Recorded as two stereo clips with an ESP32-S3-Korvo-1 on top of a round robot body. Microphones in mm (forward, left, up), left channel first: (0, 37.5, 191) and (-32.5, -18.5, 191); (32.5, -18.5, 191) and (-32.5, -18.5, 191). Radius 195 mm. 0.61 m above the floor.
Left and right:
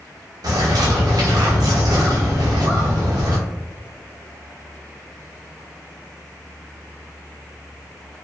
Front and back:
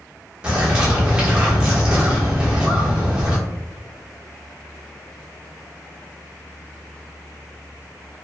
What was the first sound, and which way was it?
A bird, 100° right.